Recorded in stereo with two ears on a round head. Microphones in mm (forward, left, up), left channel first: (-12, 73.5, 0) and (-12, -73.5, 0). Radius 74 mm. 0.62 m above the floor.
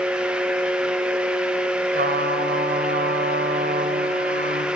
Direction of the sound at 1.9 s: 60° right (ahead or behind).